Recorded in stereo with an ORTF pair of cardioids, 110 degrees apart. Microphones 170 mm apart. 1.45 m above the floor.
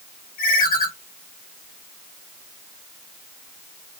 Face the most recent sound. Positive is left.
turn(degrees=60)